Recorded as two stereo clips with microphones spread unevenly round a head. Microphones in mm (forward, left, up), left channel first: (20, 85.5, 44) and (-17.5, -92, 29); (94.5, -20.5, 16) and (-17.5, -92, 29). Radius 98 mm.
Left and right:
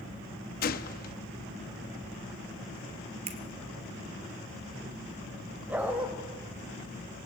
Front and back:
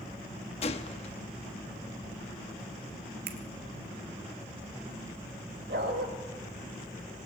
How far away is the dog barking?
About 3 m.